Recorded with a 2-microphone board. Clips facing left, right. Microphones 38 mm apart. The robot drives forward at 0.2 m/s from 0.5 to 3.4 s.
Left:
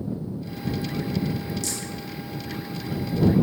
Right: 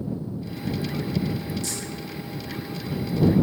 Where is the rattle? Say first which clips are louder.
Even; 80° left, 1.2 m.